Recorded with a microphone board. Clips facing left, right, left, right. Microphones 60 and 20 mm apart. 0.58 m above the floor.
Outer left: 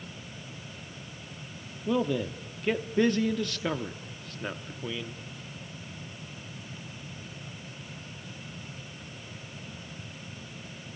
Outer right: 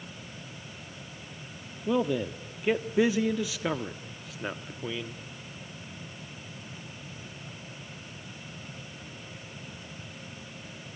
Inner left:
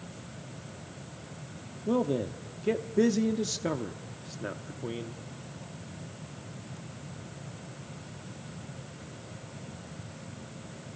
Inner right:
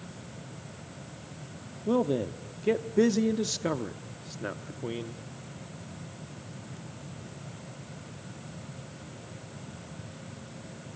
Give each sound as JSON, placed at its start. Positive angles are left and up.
{"t": 1.9, "sound": "a man speaking", "side_deg": -5, "distance_m": 0.7}